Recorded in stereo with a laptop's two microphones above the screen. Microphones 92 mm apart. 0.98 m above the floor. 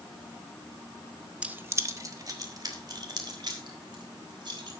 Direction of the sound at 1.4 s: 15° right (ahead or behind).